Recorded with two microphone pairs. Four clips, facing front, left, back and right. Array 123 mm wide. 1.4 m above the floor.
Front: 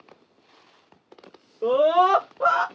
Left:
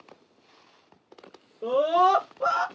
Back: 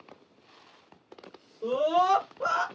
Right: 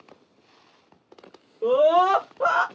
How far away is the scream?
About 1.8 m.